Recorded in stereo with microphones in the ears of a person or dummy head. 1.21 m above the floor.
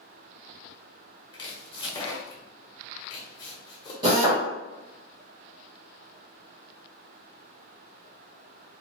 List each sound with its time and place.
1.3 s chopping: 25° left (ahead or behind), 0.7 m
4.0 s a drill: 25° right (ahead or behind), 0.9 m